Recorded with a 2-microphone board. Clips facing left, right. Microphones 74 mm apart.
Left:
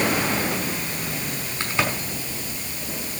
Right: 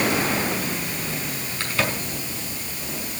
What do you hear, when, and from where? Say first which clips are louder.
1.6 s a crack: left 1 dB; 20° left (ahead or behind), 6 m